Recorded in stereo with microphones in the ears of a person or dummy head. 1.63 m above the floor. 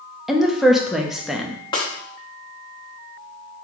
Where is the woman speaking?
Centre (ahead or behind), 0.5 m.